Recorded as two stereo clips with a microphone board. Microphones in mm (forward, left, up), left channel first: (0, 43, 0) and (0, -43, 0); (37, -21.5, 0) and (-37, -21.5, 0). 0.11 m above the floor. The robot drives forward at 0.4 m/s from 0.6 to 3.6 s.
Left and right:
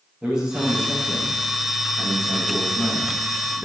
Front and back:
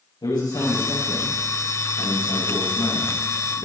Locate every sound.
0.2 s a man speaking: 10° right, 8 m